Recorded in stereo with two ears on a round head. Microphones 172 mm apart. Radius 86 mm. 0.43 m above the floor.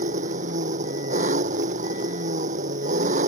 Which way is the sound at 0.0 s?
40° right (ahead or behind).